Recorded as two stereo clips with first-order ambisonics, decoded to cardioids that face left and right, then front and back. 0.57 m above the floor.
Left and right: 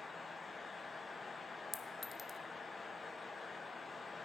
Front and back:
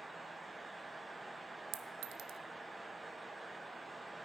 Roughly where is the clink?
Behind.